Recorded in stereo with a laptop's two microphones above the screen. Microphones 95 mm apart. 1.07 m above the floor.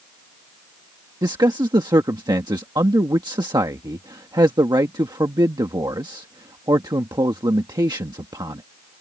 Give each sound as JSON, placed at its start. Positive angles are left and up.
{"t": 1.2, "sound": "a man speaking", "side_deg": -45}